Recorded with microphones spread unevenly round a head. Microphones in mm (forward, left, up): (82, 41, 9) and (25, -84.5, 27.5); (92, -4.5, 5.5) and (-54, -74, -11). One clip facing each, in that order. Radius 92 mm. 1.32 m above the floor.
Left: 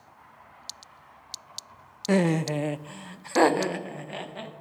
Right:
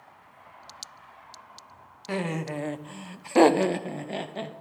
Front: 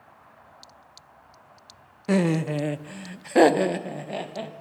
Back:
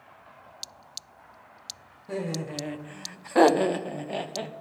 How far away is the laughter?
About 0.6 m.